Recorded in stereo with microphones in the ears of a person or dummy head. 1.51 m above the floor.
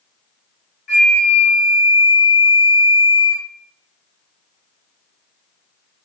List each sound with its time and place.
0.9 s a flute: 45° left (ahead or behind), 1.8 m